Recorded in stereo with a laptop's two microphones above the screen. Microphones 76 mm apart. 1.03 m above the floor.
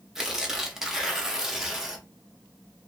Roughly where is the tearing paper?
Centre.